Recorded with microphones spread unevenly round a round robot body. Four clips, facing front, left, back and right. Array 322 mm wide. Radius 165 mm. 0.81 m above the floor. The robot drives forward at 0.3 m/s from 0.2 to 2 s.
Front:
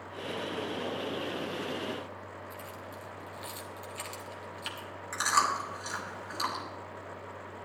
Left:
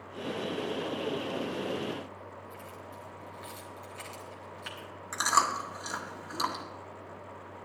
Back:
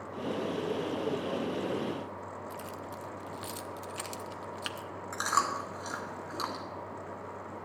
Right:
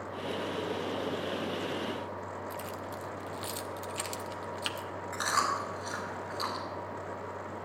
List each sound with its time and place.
2.5 s keys jangling: 135° right, 1.0 m
5.1 s chewing: 115° left, 1.6 m